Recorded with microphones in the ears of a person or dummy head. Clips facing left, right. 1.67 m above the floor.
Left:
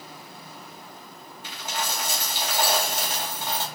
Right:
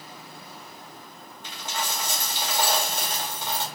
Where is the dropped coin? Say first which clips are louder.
Left 1 dB; 20° left (ahead or behind), 1.6 m.